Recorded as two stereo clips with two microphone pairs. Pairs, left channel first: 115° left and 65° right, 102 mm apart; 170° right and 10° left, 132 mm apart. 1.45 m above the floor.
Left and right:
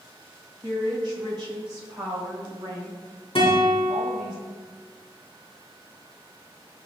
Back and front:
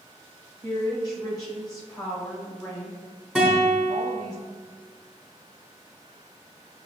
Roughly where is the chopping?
I don't hear chopping.